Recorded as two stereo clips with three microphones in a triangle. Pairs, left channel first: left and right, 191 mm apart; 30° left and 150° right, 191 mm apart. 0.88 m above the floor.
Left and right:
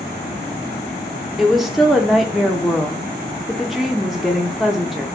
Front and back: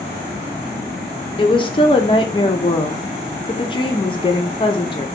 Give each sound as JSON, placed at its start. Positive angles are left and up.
{"t": 1.4, "sound": "a woman speaking", "azimuth_deg": -5, "distance_m": 0.6}